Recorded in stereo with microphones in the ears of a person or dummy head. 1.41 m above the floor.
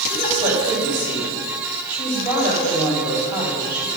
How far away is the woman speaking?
About 5.5 m.